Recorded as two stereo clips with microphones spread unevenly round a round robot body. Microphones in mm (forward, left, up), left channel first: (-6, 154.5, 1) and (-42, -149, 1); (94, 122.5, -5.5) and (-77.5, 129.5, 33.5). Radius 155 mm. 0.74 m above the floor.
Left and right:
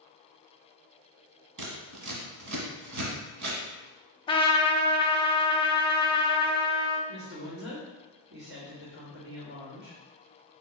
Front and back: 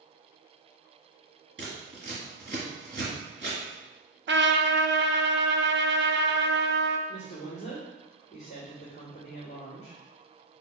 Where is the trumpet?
155° left, 0.7 m.